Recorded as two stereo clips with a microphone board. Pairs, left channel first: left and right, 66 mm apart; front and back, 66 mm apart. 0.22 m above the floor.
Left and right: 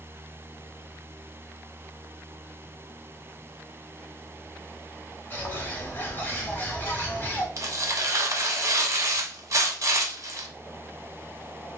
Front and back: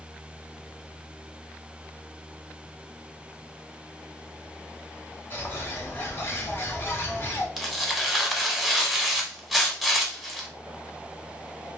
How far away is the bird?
About 0.8 m.